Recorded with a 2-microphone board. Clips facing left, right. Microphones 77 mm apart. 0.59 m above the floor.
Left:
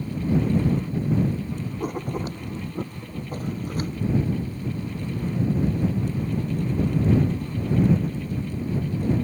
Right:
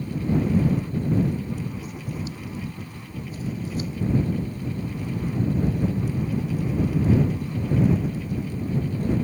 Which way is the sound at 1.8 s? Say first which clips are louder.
Left 5 dB; 50° left (ahead or behind).